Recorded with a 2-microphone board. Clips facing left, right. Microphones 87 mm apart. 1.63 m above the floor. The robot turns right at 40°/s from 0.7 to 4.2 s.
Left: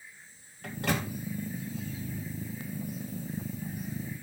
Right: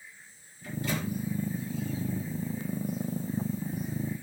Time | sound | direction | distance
0.6 | a microwave | 70° left (ahead or behind) | 2.5 m